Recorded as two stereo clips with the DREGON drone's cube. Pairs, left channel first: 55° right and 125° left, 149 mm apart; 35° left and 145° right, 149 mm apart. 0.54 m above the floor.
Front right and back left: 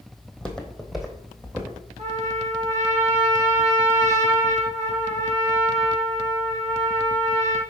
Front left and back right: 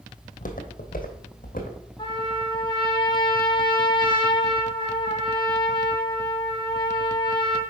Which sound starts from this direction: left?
A trumpet, at 2.0 s.